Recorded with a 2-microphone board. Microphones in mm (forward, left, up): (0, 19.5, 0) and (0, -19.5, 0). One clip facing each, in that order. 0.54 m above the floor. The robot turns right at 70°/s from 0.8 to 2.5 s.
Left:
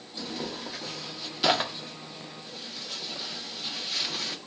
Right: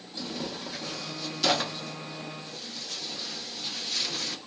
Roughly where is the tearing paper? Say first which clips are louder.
Even; centre.